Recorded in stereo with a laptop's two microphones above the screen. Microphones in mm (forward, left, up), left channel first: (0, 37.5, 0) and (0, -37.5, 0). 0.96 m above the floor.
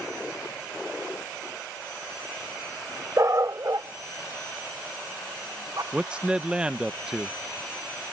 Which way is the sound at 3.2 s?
45° right (ahead or behind).